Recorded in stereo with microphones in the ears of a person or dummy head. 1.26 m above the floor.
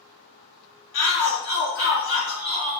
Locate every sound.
0.9 s a shout: 70° left (ahead or behind), 1.7 m